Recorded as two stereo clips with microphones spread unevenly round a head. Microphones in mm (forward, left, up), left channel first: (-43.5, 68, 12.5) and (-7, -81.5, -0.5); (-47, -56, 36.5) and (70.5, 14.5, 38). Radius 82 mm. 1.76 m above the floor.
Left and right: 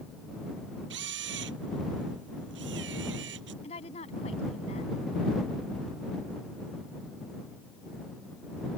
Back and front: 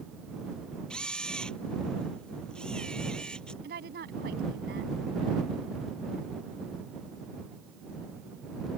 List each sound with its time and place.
0.9 s a camera shutter: 65° right
3.6 s a woman speaking: 50° left